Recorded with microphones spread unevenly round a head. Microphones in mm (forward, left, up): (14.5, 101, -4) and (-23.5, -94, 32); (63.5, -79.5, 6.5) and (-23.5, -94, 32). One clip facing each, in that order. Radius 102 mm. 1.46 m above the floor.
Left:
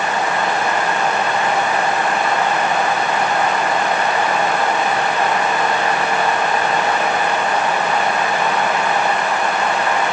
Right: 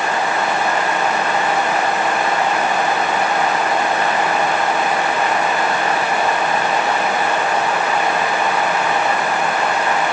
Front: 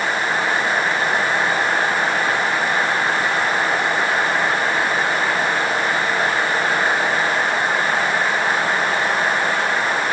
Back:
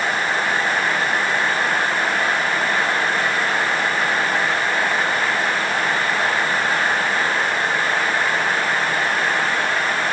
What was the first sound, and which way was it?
Only background noise.